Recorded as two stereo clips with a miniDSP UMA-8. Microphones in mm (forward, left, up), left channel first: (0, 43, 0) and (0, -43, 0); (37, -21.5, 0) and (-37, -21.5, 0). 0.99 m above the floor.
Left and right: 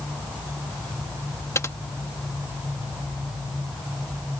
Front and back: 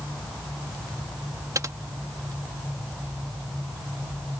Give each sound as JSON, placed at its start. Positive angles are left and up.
{"t": 1.6, "sound": "typing on a keyboard", "azimuth_deg": 145}